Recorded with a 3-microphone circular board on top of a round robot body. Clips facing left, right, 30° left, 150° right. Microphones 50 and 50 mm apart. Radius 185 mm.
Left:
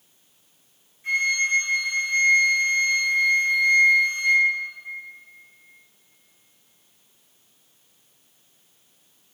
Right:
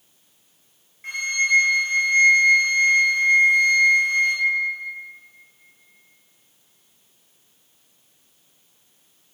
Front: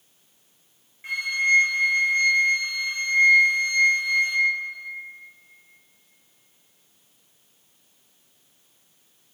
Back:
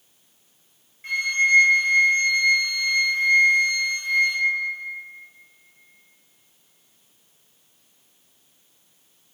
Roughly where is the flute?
Ahead right.